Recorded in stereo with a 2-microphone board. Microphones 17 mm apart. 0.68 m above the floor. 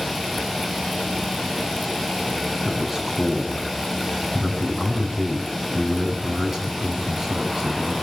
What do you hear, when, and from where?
2.6 s a man speaking: 30° right (ahead or behind), 6 m